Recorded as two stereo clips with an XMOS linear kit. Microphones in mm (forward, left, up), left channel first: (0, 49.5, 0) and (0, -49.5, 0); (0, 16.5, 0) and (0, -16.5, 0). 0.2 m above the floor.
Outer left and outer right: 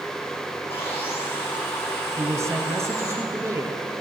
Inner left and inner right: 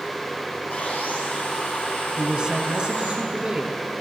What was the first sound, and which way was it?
Sawing, 75° left (ahead or behind).